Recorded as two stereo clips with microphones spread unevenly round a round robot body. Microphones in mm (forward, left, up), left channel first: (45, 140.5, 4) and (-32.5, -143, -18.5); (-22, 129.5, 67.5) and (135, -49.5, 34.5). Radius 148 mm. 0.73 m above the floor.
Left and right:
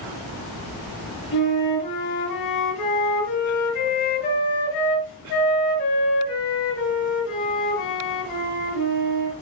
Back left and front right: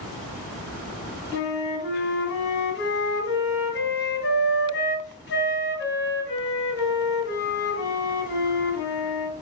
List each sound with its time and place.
1.3 s a flute: 90° left, 4.5 m